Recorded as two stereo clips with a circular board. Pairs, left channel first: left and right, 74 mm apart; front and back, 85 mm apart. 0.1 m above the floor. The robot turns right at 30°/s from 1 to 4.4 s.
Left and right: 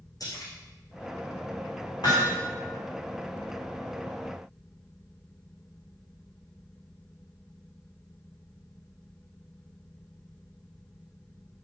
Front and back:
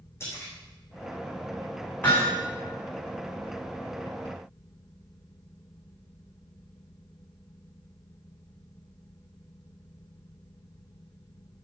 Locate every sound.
0.2 s a splash: 60° left, 5.5 m
2.0 s hammering: 75° left, 5 m; by 2.4 s 85° left, 5 m